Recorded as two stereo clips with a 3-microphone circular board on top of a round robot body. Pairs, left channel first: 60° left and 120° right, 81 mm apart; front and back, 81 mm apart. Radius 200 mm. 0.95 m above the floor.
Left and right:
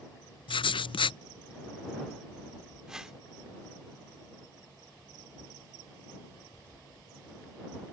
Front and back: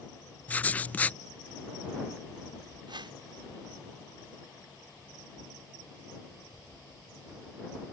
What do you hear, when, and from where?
0.5 s writing: 70° left
2.9 s a whoosh: 160° left